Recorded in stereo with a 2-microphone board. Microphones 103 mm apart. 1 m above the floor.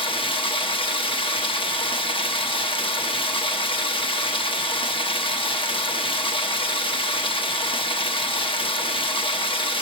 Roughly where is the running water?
Left.